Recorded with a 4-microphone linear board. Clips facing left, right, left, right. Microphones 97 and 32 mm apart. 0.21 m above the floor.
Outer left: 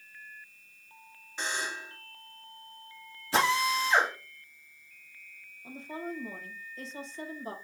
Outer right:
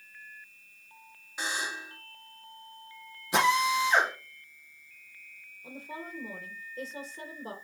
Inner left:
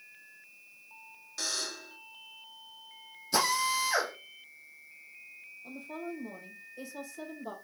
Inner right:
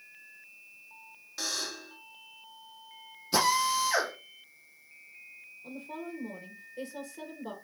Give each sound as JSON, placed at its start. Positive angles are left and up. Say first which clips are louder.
{"t": 1.4, "sound": "a buzzer", "louder": "even, inner right 1 dB", "side_deg": -10, "distance_m": 1.2}
{"t": 3.3, "sound": "a drill", "louder": "outer right 2 dB, inner right 2 dB", "side_deg": -20, "distance_m": 3.5}
{"t": 5.6, "sound": "a woman speaking", "louder": "outer left 3 dB, even", "side_deg": -40, "distance_m": 3.5}